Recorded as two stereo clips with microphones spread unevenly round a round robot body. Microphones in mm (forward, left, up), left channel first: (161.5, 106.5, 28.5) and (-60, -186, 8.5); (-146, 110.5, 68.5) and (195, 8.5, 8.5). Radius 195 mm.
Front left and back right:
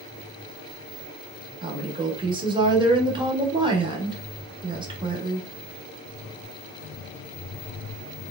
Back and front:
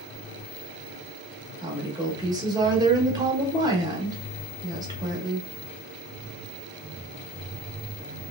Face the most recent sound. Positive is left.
turn(degrees=-65)